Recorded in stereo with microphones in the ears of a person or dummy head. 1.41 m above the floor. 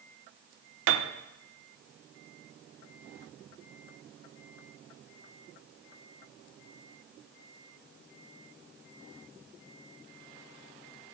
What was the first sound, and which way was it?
A piano, 75° right (ahead or behind).